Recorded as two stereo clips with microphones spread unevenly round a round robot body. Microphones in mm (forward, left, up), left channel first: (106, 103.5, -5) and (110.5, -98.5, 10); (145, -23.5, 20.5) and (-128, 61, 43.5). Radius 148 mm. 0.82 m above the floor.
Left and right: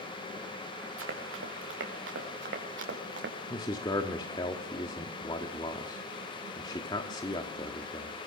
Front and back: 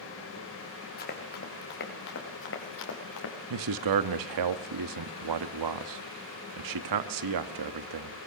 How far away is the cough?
No cough in this recording.